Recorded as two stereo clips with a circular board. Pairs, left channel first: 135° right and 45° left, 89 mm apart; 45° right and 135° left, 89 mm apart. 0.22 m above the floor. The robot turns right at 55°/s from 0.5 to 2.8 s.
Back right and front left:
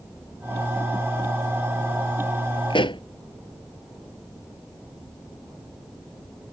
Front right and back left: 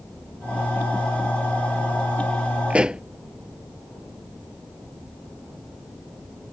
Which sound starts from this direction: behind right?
A pop, at 2.7 s.